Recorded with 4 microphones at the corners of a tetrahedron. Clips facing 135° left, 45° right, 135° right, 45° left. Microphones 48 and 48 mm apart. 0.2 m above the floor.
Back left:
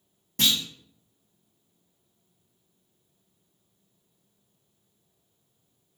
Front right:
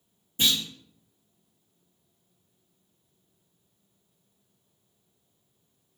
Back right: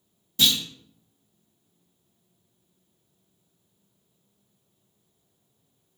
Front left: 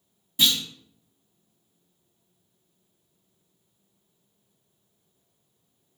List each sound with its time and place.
0.4 s a clunk: 125° left, 1.9 m